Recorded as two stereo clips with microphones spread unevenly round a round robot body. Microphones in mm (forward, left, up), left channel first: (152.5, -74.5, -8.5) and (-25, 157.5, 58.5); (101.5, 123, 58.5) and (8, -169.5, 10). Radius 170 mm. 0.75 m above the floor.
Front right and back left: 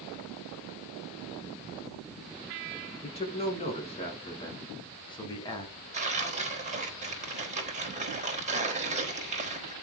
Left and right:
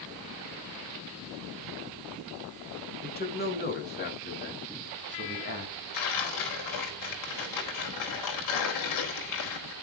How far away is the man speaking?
About 7.5 m.